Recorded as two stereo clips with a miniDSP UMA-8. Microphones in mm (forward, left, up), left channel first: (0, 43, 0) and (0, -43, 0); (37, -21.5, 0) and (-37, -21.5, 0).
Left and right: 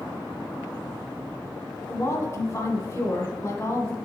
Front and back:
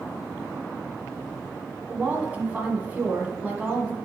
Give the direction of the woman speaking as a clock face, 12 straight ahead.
8 o'clock.